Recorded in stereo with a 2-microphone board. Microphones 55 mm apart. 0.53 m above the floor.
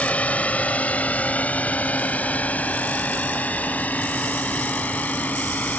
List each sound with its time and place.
0.0 s a drone: 25° left (ahead or behind); by 5.8 s 30° left (ahead or behind)